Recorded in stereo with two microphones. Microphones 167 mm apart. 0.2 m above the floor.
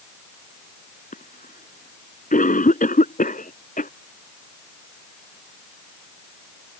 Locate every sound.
1.1 s a cough: 55° left (ahead or behind)